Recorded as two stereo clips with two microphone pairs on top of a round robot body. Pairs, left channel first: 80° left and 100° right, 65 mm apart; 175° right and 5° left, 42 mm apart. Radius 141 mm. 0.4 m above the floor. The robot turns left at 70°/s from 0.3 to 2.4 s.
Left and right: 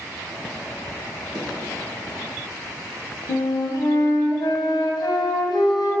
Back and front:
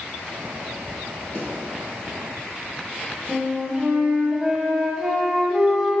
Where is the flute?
85° left, 1.2 m.